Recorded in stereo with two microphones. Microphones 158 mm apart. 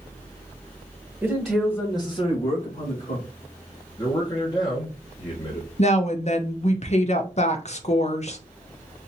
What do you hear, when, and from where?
1.2 s a man speaking: 10° right (ahead or behind), 1.3 m; by 3.2 s 65° left (ahead or behind), 2 m
4.0 s a man speaking: 30° left (ahead or behind), 1.2 m
5.8 s a woman speaking: 50° left (ahead or behind), 0.6 m